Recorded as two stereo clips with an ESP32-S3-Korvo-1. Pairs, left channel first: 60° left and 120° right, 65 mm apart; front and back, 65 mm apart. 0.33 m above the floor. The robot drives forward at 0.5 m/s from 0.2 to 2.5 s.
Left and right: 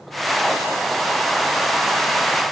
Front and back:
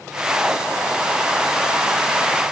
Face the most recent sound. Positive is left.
No sound to turn to.